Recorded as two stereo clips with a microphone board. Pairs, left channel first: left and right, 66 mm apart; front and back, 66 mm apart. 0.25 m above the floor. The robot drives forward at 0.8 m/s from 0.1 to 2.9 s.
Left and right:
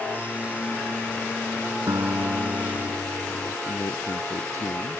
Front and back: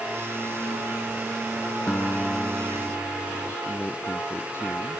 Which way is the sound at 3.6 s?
55° left.